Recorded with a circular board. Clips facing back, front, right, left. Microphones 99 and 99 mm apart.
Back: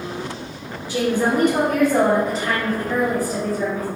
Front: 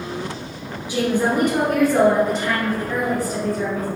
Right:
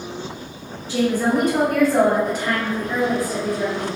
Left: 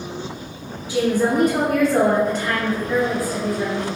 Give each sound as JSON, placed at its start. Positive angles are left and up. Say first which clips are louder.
{"t": 0.9, "sound": "a woman speaking", "louder": "even, even", "azimuth_deg": 40, "distance_m": 1.6}